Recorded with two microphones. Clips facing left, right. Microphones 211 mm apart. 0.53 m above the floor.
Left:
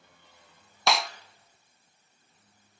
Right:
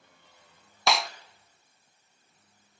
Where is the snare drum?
Centre (ahead or behind), 0.5 m.